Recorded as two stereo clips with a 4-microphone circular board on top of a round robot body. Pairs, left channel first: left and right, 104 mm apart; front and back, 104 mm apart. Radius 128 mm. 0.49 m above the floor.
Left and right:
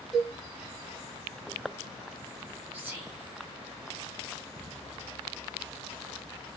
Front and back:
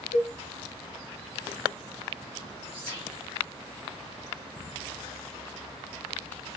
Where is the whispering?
155° right, 1.3 m.